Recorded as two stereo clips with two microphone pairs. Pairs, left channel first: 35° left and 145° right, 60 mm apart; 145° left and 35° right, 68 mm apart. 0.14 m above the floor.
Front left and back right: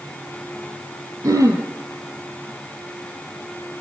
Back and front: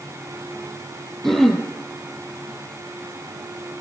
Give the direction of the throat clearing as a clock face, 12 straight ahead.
4 o'clock.